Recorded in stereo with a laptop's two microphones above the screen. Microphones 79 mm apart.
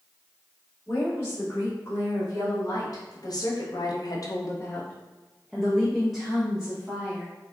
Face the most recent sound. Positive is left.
turn(degrees=-10)  # may be behind; listen again after turning